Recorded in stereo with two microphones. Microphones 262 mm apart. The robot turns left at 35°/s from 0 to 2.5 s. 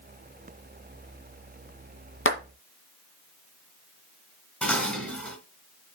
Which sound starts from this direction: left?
A clap, at 2.2 s.